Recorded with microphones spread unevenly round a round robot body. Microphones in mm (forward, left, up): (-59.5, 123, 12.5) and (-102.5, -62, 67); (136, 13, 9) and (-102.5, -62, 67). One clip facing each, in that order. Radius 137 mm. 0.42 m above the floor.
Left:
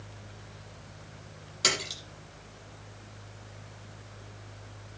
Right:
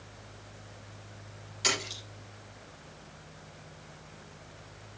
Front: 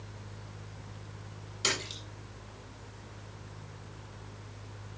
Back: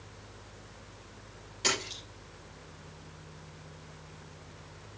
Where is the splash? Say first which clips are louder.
Left 1 dB, back 2 dB; 95° left, 8.5 m.